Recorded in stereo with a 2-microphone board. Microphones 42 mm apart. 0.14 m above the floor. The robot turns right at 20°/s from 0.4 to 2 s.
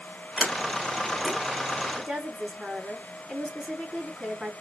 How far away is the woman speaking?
About 1.4 m.